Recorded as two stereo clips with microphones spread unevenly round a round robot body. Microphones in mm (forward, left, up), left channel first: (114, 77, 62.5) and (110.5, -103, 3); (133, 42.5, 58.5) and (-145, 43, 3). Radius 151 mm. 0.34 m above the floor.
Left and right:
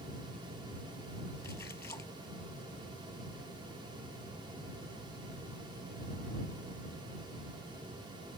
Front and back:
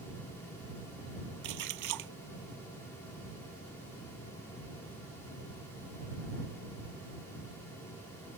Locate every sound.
1.4 s a splash: 170° left